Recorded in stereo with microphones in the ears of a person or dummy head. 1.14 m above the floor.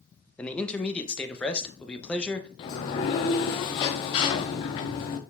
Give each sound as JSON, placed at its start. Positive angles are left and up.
{"t": 0.4, "sound": "a man speaking", "side_deg": 5, "distance_m": 0.8}
{"t": 2.6, "sound": "a sliding door", "side_deg": 30, "distance_m": 0.7}